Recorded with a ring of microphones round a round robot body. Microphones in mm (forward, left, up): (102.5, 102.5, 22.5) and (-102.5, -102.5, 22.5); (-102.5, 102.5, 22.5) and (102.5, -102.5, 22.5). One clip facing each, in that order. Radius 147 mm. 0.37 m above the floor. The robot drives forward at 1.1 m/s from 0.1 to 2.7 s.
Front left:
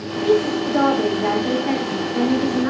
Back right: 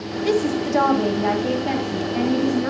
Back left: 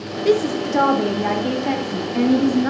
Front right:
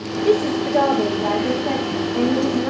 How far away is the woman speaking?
About 1.1 m.